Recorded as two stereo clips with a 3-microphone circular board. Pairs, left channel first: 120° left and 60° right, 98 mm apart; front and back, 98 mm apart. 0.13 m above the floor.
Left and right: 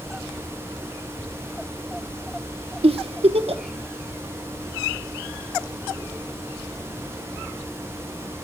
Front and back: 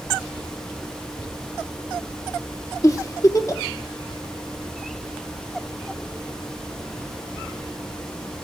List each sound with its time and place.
2.8 s a giggle: 55° right, 0.8 m